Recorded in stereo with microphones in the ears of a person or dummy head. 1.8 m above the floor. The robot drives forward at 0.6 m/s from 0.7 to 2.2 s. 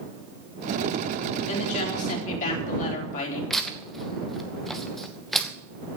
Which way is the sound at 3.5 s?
Centre (ahead or behind).